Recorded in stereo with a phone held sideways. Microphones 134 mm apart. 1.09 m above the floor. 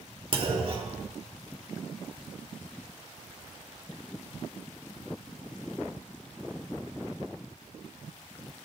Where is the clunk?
40° right (ahead or behind), 2 m.